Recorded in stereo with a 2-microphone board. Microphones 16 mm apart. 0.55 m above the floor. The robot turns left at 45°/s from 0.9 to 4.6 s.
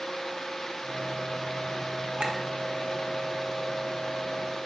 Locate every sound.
2.2 s a clink: 55° right (ahead or behind), 1.1 m